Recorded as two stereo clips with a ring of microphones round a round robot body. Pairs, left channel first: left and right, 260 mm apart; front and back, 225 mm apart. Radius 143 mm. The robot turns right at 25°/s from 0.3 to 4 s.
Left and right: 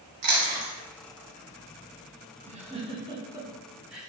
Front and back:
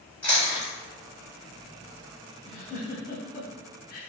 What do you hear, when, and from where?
0.2 s chewing: 85° right, 1.0 m; by 0.7 s 75° right, 1.0 m
2.5 s a giggle: 40° right, 0.6 m; by 4.1 s 5° right, 0.6 m